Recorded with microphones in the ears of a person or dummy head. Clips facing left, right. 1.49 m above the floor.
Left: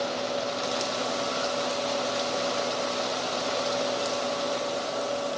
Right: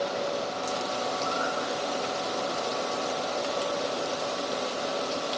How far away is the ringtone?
I don't hear a ringtone.